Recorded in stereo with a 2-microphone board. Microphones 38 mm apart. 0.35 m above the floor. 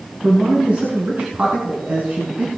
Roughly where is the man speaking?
Right.